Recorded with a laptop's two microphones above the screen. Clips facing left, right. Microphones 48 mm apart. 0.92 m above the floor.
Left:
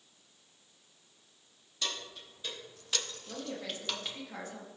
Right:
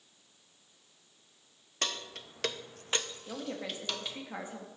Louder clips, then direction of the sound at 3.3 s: Right 1 dB; 20° right (ahead or behind).